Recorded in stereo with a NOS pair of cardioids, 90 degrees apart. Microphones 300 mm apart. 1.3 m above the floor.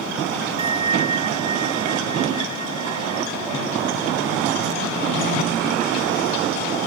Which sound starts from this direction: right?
A bell, at 0.6 s.